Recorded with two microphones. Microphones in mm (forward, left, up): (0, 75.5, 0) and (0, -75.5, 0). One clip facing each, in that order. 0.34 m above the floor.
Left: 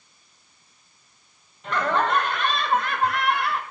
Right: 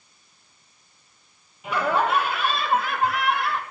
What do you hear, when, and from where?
1.6 s laughter: 10° right (ahead or behind), 1.4 m; by 3.6 s centre (ahead or behind), 1.6 m